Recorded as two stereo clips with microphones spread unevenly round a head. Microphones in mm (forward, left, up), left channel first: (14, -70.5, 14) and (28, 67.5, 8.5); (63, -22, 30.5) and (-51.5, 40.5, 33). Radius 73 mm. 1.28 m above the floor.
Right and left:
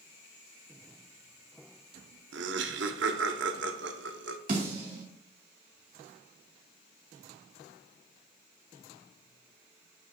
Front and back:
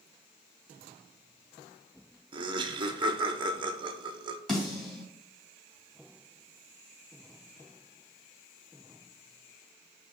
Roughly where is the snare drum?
Ahead left.